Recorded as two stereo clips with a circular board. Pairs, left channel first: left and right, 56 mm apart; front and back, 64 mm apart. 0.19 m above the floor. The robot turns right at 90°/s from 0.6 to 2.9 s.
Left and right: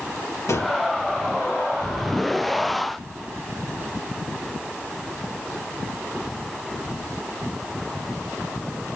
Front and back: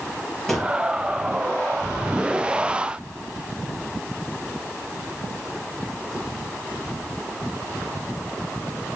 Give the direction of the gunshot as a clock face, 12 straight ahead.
9 o'clock.